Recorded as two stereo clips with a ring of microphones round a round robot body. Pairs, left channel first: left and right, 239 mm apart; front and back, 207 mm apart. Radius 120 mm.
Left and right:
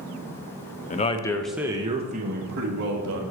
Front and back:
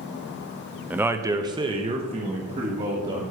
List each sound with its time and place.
0.9 s a man speaking: 105° left, 0.8 m; by 3.2 s 120° right, 1.5 m